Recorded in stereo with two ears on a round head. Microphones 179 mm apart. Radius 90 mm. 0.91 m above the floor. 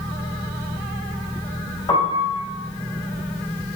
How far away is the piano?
About 5.5 m.